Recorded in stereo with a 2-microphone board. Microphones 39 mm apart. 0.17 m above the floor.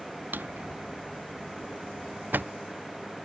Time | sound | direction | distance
0.3 | a drawer | 50° right (ahead or behind) | ?